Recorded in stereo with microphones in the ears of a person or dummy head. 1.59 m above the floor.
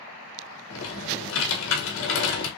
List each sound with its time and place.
0.7 s typing on a keyboard: 80° left, 1.6 m